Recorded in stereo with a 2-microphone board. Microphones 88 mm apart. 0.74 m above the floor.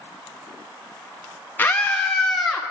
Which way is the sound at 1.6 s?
20° left (ahead or behind).